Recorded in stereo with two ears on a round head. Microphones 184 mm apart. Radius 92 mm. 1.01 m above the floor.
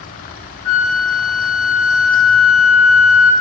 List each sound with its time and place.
0.7 s a flute: 80° left, 0.7 m